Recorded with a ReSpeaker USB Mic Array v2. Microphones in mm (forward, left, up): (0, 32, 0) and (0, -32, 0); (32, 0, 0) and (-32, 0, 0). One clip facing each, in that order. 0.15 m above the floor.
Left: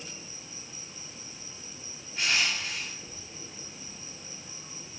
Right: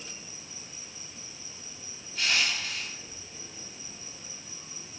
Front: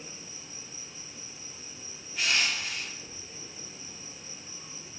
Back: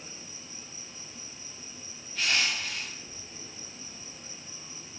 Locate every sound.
0.0 s an insect: 75° left, 2 m
2.1 s crushing: 65° left, 1.9 m